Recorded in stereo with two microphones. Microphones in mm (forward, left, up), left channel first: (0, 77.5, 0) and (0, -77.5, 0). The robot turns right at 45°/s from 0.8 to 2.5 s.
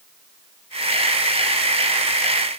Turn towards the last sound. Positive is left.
No sound to turn to.